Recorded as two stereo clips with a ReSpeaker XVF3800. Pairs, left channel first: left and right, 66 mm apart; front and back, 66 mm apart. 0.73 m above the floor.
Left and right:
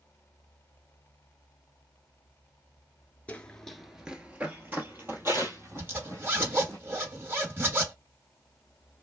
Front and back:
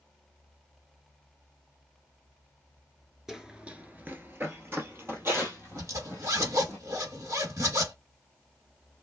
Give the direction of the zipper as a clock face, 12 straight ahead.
5 o'clock.